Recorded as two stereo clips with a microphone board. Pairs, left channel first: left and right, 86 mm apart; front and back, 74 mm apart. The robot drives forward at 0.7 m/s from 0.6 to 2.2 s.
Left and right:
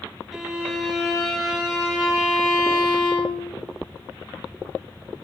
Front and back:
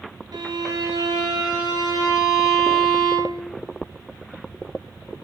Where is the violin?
Straight behind, 1.4 m.